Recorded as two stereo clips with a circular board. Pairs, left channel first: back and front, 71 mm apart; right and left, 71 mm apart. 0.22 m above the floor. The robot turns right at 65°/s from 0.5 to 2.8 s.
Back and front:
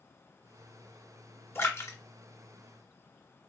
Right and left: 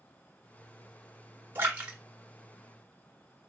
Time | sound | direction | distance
1.6 | a splash | 140° left | 1.4 m